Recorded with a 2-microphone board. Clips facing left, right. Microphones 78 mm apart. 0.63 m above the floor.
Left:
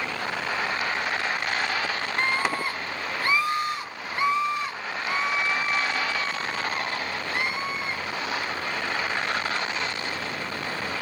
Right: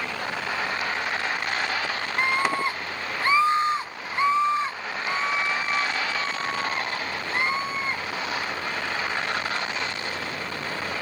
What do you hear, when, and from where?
2.2 s a scream: 10° right (ahead or behind), 0.6 m; by 8.0 s 30° right (ahead or behind), 5 m